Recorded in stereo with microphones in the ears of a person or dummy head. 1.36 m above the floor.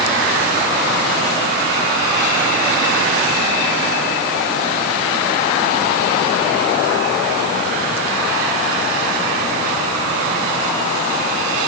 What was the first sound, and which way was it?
Only background noise.